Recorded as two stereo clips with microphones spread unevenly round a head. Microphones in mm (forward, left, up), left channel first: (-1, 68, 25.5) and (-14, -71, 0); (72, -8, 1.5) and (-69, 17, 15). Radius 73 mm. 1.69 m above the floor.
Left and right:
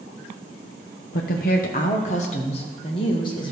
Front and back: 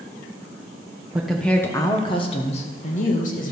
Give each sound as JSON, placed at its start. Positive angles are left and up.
{"t": 1.1, "sound": "a woman speaking", "azimuth_deg": 90, "distance_m": 0.9}